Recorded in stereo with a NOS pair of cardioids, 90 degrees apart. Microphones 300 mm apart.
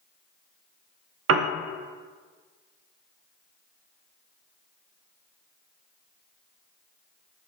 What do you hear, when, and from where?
1.3 s a piano: 55° right, 0.5 m